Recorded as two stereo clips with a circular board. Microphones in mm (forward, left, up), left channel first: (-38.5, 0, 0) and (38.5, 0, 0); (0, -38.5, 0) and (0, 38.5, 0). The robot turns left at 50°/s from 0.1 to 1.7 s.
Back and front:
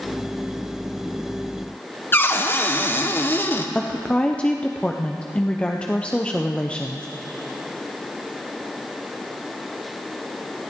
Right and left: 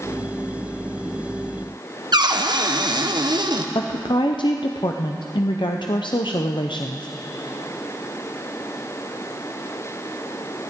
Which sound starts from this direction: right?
A woman speaking, at 3.8 s.